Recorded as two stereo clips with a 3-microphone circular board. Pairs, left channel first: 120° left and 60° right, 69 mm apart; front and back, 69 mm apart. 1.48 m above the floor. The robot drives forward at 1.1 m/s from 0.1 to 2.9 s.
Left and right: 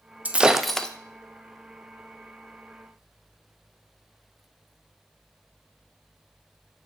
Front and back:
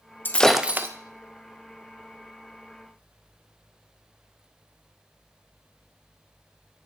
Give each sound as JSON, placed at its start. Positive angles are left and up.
{"t": 0.2, "sound": "breaking glass", "azimuth_deg": -15, "distance_m": 0.6}